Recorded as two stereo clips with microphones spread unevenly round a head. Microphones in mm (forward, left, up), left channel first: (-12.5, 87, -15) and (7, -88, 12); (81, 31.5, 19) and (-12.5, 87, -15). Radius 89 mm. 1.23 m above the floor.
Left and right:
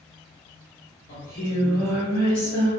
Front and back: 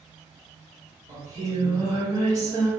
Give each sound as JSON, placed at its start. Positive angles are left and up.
{"t": 1.1, "sound": "singing", "azimuth_deg": 110, "distance_m": 1.1}